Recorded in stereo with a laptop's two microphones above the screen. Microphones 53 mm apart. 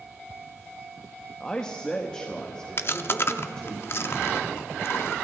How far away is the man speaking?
About 1.3 m.